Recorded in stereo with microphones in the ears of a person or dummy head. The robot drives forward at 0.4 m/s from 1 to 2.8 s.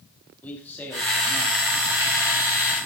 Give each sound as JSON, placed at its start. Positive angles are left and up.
{"t": 0.4, "sound": "a man speaking", "side_deg": 10, "distance_m": 1.6}